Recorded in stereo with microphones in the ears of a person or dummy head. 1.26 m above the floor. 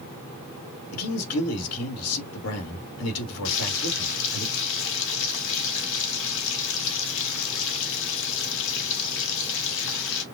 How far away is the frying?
About 1.4 m.